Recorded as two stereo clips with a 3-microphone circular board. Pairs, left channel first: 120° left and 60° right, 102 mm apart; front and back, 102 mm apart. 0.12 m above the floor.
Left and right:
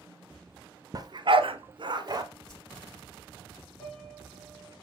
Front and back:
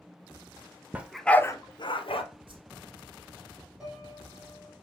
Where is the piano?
95° left, 4 m.